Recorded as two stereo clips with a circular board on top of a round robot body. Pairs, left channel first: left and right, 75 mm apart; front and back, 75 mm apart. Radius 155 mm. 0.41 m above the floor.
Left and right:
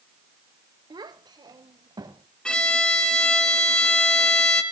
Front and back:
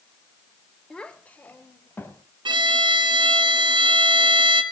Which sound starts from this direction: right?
A child speaking, at 0.9 s.